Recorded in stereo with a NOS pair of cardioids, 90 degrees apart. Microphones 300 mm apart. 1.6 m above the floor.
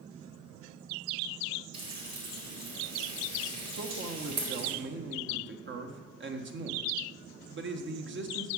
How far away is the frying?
About 4.5 m.